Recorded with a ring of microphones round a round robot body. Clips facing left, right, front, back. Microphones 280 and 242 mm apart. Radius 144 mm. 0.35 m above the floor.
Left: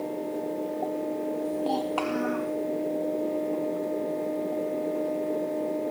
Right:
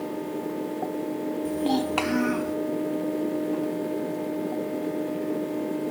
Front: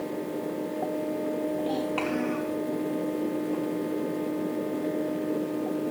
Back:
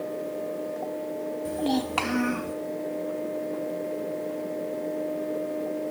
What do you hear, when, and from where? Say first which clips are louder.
1.4 s a child speaking: right 7 dB, back 1 dB; 150° right, 1.9 m; by 2.5 s 135° right, 3 m